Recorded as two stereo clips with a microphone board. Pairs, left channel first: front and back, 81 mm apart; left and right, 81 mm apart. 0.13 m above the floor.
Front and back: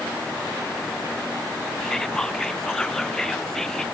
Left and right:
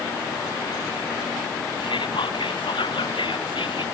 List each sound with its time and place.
1.8 s whispering: 85° left